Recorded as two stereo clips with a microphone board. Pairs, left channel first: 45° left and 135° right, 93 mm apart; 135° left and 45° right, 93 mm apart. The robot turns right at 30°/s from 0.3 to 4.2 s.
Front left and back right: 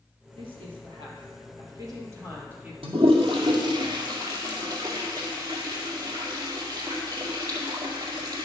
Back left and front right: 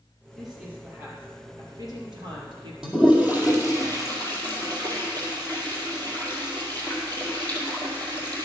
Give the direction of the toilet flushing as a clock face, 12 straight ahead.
4 o'clock.